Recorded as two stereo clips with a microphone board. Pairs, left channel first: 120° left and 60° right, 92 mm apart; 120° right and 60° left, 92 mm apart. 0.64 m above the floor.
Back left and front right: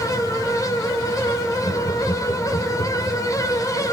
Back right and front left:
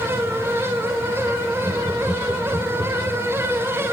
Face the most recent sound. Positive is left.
turn(degrees=105)